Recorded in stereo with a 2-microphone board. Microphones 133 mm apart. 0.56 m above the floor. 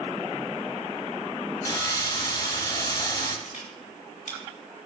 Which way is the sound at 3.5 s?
70° left (ahead or behind).